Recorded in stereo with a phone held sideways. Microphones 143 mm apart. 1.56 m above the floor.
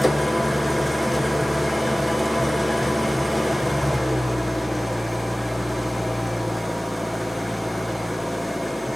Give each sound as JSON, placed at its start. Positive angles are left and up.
{"t": 0.0, "sound": "an engine running", "side_deg": 0, "distance_m": 0.8}